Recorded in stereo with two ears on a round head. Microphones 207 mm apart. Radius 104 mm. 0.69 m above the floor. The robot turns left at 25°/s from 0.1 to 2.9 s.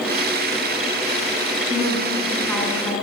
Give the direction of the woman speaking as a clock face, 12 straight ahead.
5 o'clock.